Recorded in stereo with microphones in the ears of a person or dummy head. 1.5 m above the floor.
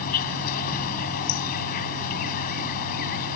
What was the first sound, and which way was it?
An insect, 50° left (ahead or behind).